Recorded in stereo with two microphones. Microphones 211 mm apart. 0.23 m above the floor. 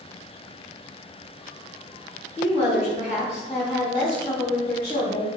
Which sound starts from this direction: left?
A woman speaking, at 2.4 s.